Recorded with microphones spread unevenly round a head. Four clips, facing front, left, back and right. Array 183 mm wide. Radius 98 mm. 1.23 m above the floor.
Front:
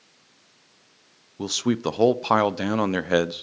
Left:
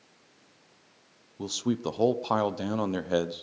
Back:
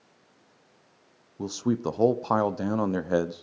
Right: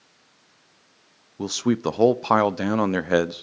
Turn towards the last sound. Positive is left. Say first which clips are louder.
# right 6 dB, front 3 dB
turn(degrees=-45)